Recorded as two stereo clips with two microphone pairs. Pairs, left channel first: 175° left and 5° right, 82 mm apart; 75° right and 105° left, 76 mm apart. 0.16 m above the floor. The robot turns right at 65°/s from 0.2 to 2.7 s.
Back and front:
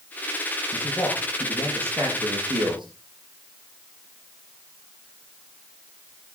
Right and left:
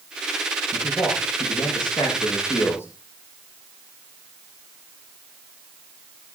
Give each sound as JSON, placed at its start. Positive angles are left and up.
{"t": 0.7, "sound": "a man speaking", "azimuth_deg": -145, "distance_m": 7.0}